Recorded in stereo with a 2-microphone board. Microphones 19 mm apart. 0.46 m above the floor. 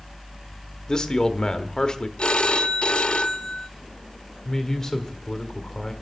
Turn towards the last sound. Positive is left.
turn(degrees=30)  # may be behind; listen again after turning